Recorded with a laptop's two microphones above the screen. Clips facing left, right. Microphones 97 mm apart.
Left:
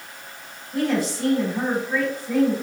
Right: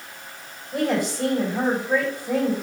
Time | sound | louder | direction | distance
0.7 | a woman speaking | even | 55° right (ahead or behind) | 3.5 m